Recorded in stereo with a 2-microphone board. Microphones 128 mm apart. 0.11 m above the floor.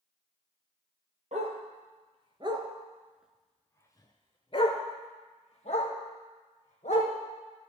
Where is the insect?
No insect in this recording.